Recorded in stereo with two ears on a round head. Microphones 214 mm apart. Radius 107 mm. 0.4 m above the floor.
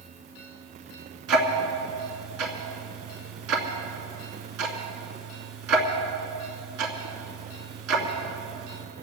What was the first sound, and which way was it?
Ticking, 70° right (ahead or behind).